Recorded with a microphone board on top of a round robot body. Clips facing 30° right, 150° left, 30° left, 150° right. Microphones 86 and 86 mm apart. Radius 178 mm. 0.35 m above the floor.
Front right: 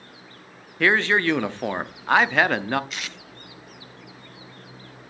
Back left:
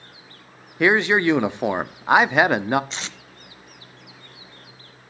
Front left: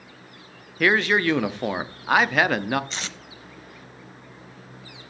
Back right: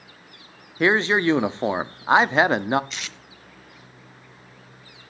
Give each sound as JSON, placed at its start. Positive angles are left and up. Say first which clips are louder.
{"t": 0.8, "sound": "a man speaking", "louder": "back left 3 dB, back right 1 dB", "azimuth_deg": -165, "distance_m": 1.0}
{"t": 2.9, "sound": "tape being pulled", "louder": "back left 1 dB, front left 3 dB", "azimuth_deg": 90, "distance_m": 0.9}